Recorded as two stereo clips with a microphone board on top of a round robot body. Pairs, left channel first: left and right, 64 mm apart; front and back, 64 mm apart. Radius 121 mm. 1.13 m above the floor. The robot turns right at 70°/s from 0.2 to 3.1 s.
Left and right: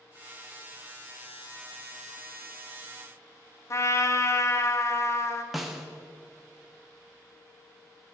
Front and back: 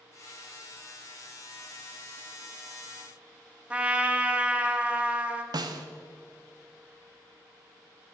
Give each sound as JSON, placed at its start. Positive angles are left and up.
{"t": 3.7, "sound": "a trumpet", "azimuth_deg": 115, "distance_m": 0.8}
{"t": 5.5, "sound": "a snare drum", "azimuth_deg": -175, "distance_m": 0.7}